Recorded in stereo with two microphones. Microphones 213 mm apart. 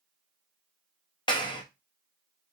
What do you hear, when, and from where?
1.3 s a clap: 20° left (ahead or behind), 0.8 m